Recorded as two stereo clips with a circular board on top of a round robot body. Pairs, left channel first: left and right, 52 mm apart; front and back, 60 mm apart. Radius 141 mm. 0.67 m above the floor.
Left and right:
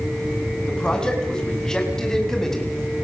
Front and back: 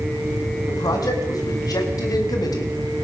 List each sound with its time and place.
0.7 s a man speaking: 15° left, 6 m; by 2.8 s 10° left, 4.5 m